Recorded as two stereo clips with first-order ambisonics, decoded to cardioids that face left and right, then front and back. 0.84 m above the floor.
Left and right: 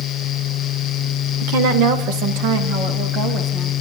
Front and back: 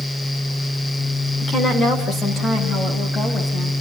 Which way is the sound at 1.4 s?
75° right.